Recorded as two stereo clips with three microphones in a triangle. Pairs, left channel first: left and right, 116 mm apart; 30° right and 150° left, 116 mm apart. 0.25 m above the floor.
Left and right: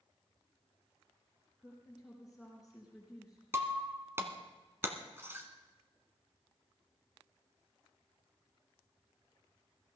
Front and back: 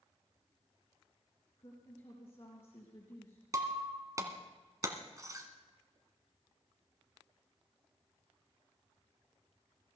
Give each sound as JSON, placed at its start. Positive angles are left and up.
{"t": 1.6, "sound": "a woman speaking", "azimuth_deg": -5, "distance_m": 3.5}
{"t": 3.5, "sound": "breaking glass", "azimuth_deg": -155, "distance_m": 1.6}